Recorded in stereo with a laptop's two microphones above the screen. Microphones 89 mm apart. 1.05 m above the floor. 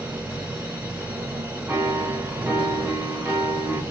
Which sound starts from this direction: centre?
A piano, at 1.7 s.